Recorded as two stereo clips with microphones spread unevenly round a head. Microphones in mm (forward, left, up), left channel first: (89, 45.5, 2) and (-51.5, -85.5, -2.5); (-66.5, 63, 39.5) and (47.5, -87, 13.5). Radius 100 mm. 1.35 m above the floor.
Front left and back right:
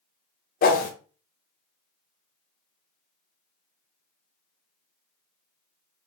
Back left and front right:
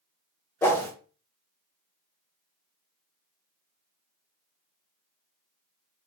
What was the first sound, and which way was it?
A whoosh, 60° left.